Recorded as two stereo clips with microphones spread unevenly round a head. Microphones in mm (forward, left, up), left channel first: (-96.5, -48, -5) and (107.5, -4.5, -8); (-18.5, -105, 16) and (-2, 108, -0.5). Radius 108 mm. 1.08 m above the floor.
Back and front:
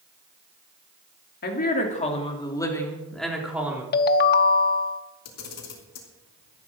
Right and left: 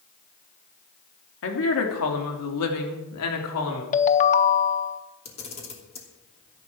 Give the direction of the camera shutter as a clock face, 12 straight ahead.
5 o'clock.